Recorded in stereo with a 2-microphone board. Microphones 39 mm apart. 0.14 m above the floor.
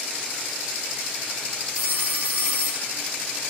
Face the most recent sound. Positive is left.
turn(degrees=-40)  # may be behind; listen again after turning